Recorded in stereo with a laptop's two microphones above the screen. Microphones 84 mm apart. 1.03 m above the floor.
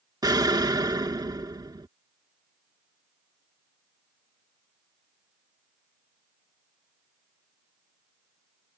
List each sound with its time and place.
0.2 s an explosion: 50° right (ahead or behind)